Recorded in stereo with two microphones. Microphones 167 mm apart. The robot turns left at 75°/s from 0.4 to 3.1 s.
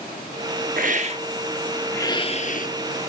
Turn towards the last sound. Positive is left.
turn(degrees=75)